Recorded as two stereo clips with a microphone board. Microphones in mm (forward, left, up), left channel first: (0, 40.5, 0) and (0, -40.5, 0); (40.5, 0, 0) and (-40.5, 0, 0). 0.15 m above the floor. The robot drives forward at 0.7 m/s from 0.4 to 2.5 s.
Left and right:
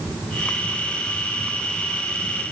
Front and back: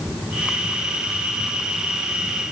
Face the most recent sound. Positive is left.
No sound to turn to.